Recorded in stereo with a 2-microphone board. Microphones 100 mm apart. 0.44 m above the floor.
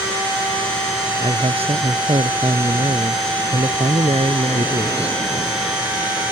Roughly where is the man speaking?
Right.